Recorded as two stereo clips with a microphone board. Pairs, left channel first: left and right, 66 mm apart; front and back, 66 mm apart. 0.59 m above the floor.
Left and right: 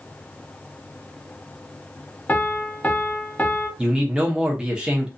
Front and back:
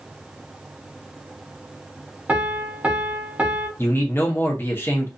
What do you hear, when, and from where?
2.3 s a piano: 130° left, 0.7 m
3.8 s a man speaking: 20° right, 0.7 m